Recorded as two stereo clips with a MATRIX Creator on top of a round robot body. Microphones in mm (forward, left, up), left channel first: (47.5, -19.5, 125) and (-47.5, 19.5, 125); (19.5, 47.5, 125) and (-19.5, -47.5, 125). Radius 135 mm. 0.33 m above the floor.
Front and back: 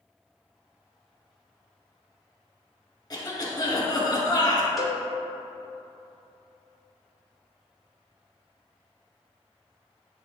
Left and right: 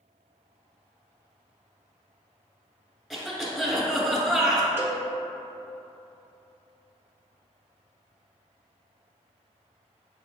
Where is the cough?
25° right, 1.7 m.